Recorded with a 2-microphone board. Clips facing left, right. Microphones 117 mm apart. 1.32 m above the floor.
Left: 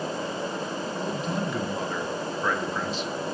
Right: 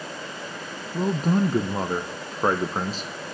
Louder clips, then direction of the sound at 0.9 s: Right 9 dB; 40° right (ahead or behind).